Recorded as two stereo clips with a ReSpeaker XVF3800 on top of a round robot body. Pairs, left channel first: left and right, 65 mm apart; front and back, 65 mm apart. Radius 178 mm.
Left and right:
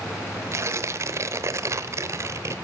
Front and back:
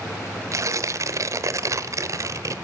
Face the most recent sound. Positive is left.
turn(degrees=-140)